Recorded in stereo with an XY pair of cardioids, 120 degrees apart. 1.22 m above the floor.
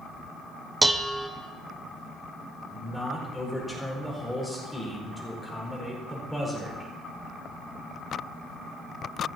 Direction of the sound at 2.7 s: 5° left.